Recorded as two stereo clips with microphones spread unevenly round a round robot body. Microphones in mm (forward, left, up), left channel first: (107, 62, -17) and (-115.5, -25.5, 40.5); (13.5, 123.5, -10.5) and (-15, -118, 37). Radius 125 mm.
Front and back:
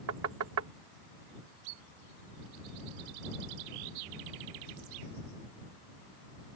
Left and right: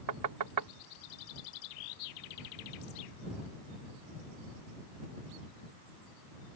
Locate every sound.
0.1 s knocking: 115° right